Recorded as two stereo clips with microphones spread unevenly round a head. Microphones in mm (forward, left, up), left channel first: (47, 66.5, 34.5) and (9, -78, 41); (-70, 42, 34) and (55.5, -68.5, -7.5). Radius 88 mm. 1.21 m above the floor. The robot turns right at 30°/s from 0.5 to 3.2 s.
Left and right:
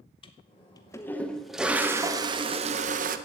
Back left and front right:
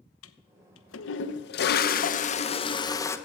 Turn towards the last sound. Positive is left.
turn(degrees=-145)